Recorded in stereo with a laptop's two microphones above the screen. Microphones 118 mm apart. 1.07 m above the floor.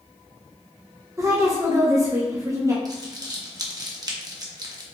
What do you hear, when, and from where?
1.2 s a woman speaking: 25° right (ahead or behind), 0.5 m
2.9 s crumpling: 30° right (ahead or behind), 0.7 m